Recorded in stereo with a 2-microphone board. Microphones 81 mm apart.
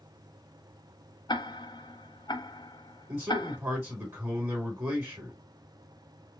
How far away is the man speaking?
About 3 m.